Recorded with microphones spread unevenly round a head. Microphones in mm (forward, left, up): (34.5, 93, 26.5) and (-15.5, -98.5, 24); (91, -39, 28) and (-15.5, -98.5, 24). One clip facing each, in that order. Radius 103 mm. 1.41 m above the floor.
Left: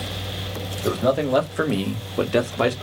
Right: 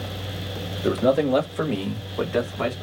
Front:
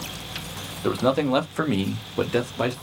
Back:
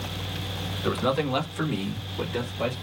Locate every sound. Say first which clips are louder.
0.8 s a man speaking: right 1 dB, front 4 dB; 30° right, 1.3 m; by 2.7 s 45° left, 1.1 m